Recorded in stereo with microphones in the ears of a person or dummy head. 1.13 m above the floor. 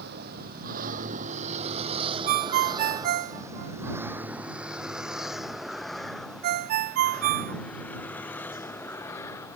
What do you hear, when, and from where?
0.0 s a vehicle: 60° right (ahead or behind); by 9.6 s 15° left (ahead or behind)
2.3 s a ringtone: 50° right (ahead or behind)